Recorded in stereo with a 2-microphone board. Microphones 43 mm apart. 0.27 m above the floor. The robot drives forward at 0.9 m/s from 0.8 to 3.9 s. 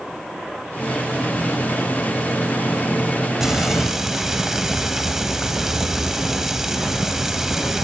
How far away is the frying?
About 0.8 m.